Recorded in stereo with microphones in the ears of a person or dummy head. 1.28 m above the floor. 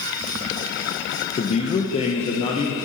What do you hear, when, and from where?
1.4 s a man speaking: 35° left (ahead or behind), 0.7 m